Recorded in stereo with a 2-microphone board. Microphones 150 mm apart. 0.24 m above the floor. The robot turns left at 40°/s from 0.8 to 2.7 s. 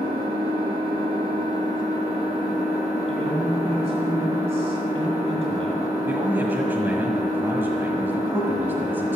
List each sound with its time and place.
0.0 s an engine running: 85° right, 4 m; by 9.2 s 160° right, 4 m
3.1 s a man speaking: 40° right (ahead or behind), 1.8 m
6.1 s a man speaking: 15° right (ahead or behind), 1.5 m